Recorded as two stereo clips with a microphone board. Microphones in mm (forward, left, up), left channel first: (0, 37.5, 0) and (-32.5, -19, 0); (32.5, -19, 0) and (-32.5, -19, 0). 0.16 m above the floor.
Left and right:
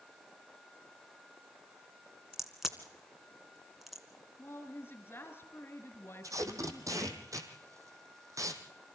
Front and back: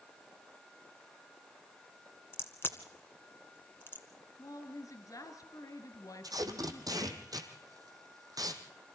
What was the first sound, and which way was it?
A crack, 35° right.